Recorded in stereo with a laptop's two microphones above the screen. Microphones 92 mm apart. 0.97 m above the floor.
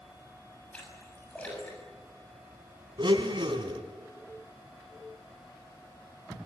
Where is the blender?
60° right (ahead or behind), 2.5 m.